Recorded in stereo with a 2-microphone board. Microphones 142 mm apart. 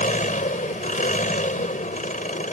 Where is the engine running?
80° left.